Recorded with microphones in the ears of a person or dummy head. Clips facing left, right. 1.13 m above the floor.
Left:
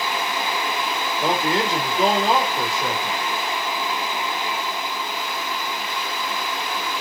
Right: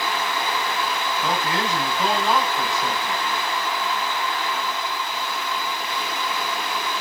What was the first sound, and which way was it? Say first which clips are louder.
A man speaking: left 5 dB; 30° left (ahead or behind).